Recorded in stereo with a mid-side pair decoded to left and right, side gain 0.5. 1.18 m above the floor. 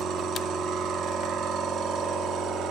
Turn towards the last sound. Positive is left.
turn(degrees=-65)